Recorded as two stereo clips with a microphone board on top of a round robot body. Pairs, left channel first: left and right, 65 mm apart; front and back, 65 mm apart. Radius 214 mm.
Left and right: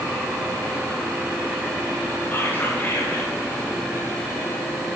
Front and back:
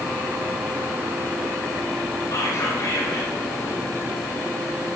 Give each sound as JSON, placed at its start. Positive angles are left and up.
{"t": 2.3, "sound": "whispering", "azimuth_deg": 30, "distance_m": 8.0}